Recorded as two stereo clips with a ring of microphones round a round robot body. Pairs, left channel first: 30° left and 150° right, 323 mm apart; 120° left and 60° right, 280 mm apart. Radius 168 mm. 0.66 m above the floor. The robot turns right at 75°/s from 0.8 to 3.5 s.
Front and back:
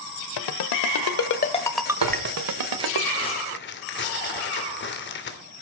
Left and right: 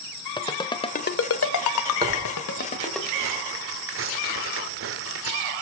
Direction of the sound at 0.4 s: 45° left.